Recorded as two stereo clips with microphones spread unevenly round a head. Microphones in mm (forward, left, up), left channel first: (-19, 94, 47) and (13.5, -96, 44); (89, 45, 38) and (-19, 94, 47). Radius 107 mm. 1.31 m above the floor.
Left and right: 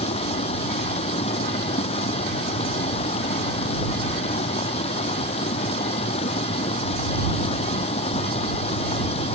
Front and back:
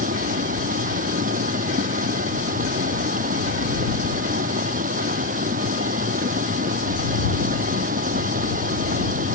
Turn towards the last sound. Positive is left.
turn(degrees=160)